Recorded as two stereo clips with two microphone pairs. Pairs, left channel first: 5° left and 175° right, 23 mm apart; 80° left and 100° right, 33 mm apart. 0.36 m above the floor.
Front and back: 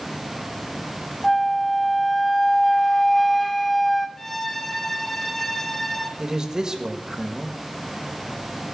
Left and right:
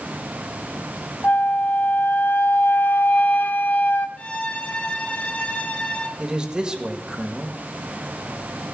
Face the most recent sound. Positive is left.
turn(degrees=-145)